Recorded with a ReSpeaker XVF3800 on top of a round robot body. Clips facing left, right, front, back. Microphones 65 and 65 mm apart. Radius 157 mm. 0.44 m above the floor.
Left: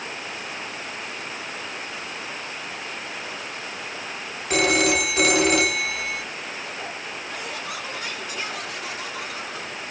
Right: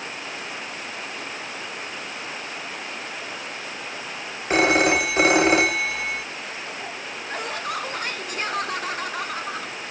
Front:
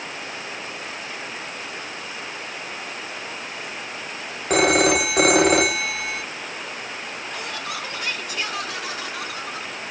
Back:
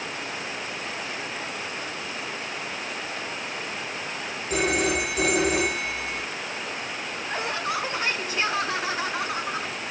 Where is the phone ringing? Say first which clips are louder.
Right 2 dB, front 7 dB; 30° right, 1.1 m.